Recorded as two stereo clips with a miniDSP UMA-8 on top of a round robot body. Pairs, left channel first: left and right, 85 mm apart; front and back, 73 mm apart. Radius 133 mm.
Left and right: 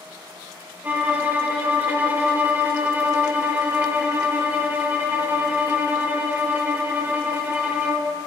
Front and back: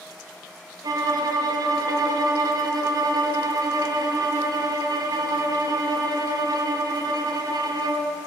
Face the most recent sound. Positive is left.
turn(degrees=-160)